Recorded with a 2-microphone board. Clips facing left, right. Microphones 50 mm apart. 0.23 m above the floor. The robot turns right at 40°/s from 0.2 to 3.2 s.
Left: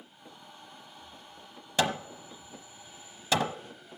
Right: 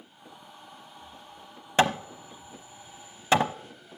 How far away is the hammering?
About 0.8 m.